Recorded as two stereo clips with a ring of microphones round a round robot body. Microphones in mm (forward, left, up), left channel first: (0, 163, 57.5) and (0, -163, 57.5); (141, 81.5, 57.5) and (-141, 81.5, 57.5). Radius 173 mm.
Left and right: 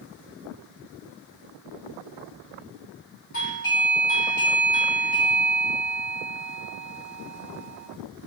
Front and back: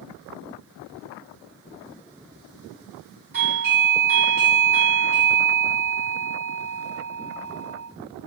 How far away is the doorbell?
About 2 m.